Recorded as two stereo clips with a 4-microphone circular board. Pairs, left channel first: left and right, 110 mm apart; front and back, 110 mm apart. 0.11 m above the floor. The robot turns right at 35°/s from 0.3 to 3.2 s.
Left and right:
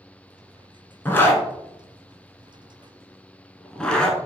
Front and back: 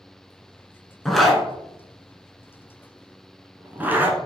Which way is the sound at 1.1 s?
80° left.